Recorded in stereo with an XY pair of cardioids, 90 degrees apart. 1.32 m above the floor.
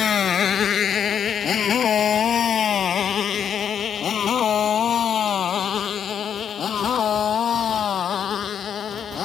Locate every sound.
0.0 s a motorcycle: 55° left; by 9.2 s 60° left